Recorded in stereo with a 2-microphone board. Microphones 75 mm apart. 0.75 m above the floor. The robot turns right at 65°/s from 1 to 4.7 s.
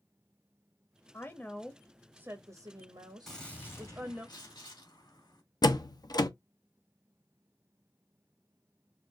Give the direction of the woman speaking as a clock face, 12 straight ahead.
7 o'clock.